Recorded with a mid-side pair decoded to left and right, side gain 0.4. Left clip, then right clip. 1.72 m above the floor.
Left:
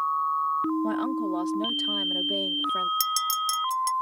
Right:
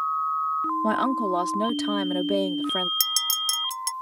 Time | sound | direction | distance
0.8 | a woman speaking | 60° right | ?
3.0 | a clink | 30° right | ?